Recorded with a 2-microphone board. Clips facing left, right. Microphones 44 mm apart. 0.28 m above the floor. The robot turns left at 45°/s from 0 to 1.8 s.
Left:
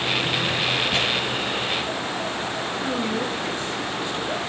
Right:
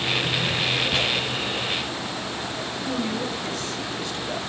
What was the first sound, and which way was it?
Tearing paper, 10° right (ahead or behind).